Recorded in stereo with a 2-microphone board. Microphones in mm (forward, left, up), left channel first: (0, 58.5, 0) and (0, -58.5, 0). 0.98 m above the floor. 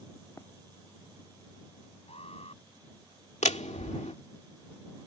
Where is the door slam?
75° left (ahead or behind).